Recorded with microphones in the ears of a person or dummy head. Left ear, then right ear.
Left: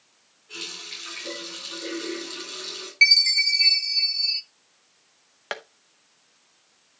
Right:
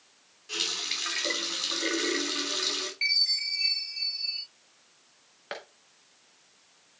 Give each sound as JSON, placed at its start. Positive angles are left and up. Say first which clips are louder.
{"t": 0.5, "sound": "a running tap", "louder": "right 5 dB", "side_deg": -80, "distance_m": 3.0}
{"t": 3.0, "sound": "a chime", "louder": "left 10 dB", "side_deg": 60, "distance_m": 1.7}
{"t": 5.5, "sound": "tapping", "louder": "left 6 dB", "side_deg": 30, "distance_m": 0.8}